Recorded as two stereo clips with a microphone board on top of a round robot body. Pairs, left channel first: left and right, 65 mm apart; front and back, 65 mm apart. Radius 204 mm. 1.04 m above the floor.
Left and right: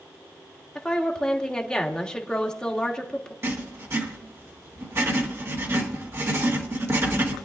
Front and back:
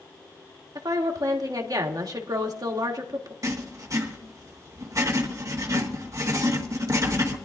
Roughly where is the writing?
Behind right.